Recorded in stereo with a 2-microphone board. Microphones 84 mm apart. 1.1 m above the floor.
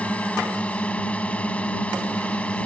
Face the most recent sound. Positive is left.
turn(degrees=15)  # may be behind; listen again after turning